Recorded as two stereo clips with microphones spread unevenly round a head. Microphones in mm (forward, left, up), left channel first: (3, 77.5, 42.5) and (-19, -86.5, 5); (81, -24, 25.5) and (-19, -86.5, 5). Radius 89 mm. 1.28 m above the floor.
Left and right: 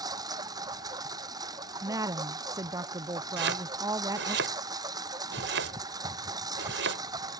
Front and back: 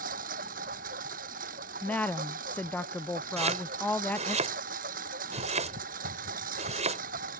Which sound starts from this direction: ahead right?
A woman speaking, at 1.8 s.